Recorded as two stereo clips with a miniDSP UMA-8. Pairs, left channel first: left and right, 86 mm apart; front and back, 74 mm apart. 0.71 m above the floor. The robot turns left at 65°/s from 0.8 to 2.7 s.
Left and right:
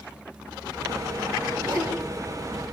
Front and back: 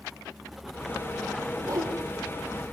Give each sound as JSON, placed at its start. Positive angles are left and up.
{"t": 1.6, "sound": "a whoosh", "azimuth_deg": -130, "distance_m": 6.0}